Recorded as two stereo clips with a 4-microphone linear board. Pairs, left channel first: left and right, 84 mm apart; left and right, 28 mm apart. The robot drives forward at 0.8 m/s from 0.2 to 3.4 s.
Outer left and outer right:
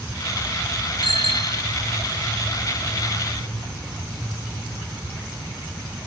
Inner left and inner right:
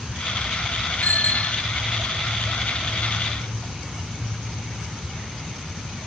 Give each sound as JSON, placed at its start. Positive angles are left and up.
{"t": 1.0, "sound": "a bicycle bell", "side_deg": 80}